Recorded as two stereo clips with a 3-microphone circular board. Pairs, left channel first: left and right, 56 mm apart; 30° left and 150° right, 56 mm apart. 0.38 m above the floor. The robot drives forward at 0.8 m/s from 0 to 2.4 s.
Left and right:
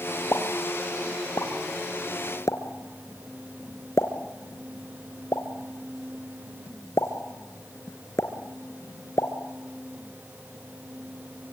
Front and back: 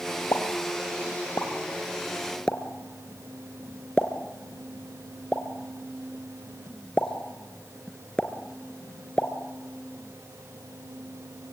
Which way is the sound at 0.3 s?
50° left.